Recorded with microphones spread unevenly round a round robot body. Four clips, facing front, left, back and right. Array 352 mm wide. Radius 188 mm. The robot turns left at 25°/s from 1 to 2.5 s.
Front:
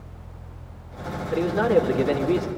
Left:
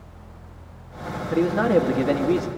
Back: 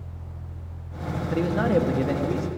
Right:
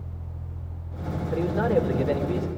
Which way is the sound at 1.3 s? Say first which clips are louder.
Left 4 dB, front 3 dB; 100° left.